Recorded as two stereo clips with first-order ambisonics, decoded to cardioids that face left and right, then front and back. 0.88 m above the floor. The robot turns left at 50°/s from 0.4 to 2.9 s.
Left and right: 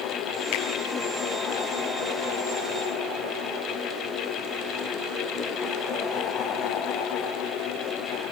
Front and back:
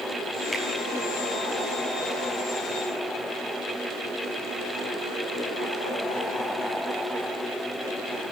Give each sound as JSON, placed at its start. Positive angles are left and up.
{"t": 0.5, "sound": "a finger snap", "azimuth_deg": 90, "distance_m": 6.5}